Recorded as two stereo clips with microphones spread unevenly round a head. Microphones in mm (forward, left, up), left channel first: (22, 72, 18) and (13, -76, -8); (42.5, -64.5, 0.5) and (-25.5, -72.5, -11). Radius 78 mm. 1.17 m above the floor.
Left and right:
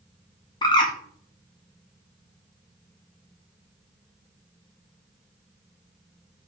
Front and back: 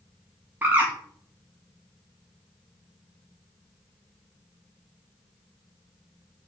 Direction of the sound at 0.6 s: 150° left.